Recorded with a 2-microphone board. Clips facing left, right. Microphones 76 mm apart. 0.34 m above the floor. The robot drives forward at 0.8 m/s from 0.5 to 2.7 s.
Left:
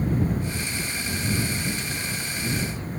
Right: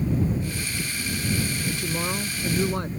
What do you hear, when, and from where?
1.7 s a woman speaking: 60° right (ahead or behind); by 2.9 s 65° right (ahead or behind)